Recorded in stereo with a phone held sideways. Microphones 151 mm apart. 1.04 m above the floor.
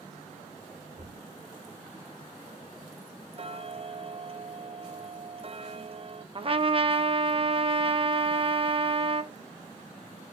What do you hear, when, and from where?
0.9 s knocking: 45° right (ahead or behind), 3 m
3.4 s ticking: 40° right (ahead or behind), 0.5 m
6.3 s a trumpet: 40° right (ahead or behind), 0.7 m